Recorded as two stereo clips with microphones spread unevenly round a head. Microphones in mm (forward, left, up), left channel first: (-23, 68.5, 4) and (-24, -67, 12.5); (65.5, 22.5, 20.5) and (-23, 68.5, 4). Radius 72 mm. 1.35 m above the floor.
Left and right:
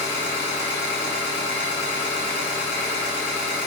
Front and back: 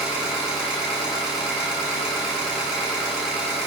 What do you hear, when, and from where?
0.0 s an engine running: 65° left, 1.4 m